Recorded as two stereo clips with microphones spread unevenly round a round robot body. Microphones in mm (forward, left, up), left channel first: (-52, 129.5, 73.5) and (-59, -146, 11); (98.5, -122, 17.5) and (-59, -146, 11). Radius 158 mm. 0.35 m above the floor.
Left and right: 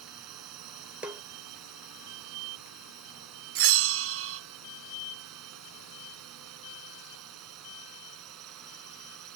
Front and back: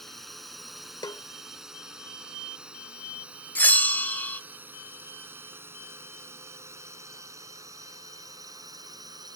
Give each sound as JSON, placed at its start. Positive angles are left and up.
{"t": 0.0, "sound": "a drone", "azimuth_deg": -80}
{"t": 1.0, "sound": "a snare drum", "azimuth_deg": -30}
{"t": 3.5, "sound": "a bell", "azimuth_deg": -70}